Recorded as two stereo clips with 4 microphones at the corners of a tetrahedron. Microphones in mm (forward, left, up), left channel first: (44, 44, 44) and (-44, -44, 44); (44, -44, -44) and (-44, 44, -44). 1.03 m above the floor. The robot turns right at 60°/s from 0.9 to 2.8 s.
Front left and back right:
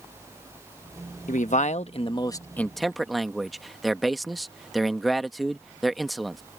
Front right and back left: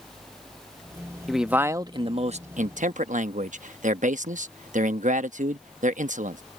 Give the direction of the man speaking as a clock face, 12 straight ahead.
11 o'clock.